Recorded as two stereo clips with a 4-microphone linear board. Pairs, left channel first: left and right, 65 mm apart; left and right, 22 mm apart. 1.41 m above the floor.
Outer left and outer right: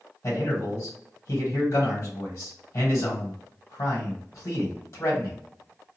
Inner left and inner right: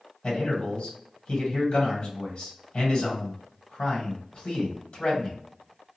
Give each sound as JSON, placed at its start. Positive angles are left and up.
{"t": 0.2, "sound": "a man speaking", "side_deg": 60, "distance_m": 1.3}